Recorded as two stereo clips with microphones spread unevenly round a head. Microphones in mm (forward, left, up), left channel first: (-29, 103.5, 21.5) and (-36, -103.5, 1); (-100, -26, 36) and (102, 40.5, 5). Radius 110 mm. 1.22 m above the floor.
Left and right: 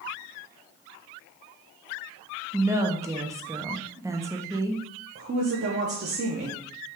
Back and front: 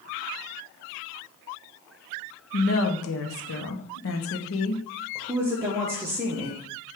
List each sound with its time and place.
2.5 s a woman speaking: 160° right, 0.8 m
5.2 s a woman speaking: 55° right, 0.7 m